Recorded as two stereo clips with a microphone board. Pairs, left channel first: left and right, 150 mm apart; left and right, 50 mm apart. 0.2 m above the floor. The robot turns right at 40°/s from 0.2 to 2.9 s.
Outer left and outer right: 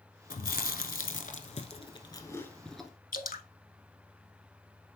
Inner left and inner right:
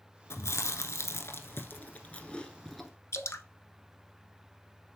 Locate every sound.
0.3 s chewing: 70° left (ahead or behind), 0.8 m; by 2.9 s 5° right (ahead or behind), 0.8 m
3.1 s dripping: 70° left (ahead or behind), 0.7 m